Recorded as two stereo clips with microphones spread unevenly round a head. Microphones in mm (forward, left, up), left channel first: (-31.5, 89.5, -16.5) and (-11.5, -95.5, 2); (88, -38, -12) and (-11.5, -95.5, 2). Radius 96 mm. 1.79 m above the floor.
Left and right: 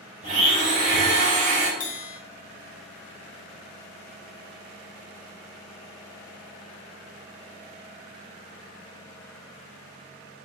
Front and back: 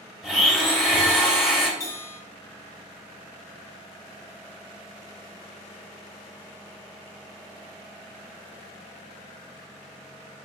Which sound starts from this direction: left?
A bell, at 1.8 s.